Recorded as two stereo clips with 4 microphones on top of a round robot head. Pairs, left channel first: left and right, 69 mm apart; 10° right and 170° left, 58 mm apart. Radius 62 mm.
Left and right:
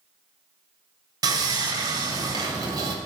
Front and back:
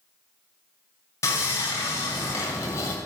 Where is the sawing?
50° right, 2.5 m.